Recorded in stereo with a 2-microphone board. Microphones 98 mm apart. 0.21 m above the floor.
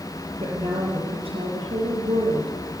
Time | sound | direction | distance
0.4 | a woman speaking | 75° right (ahead or behind) | 6.5 m